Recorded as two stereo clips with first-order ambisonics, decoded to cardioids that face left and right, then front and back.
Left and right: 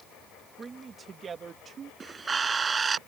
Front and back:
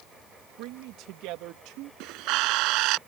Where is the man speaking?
165° right; by 1.9 s 155° right.